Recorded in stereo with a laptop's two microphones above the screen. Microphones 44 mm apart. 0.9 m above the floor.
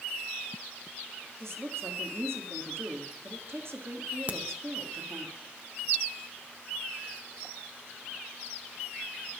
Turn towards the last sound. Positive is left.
turn(degrees=-35)  # may be behind; listen again after turning